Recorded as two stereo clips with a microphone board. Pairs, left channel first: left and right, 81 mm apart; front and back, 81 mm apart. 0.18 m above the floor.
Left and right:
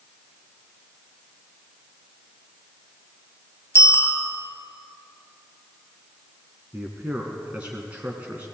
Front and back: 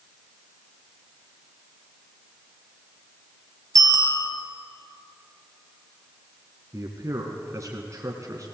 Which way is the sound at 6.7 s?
155° right.